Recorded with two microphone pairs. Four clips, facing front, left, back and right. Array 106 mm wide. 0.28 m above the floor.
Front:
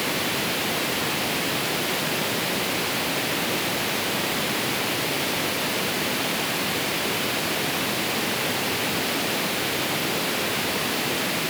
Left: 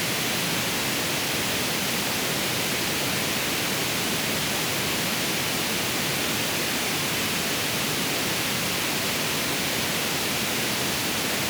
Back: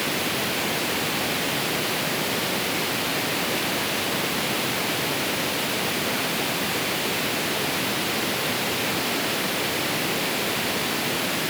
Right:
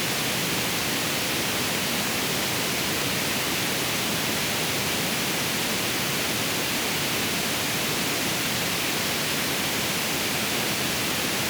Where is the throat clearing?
I don't hear throat clearing.